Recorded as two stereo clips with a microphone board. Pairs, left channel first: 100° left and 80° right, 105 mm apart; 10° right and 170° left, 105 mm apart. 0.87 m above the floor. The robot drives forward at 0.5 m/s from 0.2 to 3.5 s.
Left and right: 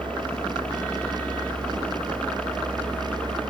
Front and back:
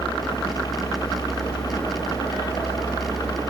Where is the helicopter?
25° left.